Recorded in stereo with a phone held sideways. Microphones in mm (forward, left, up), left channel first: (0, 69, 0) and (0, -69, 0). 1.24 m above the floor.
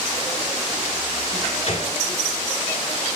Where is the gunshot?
50° left (ahead or behind), 3.5 m.